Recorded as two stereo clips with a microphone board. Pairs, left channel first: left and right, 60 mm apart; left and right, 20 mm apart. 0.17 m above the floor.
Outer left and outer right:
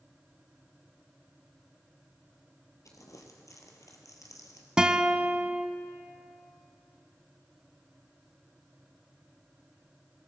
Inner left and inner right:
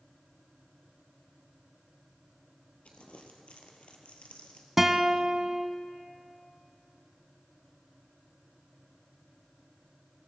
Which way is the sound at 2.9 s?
70° left (ahead or behind).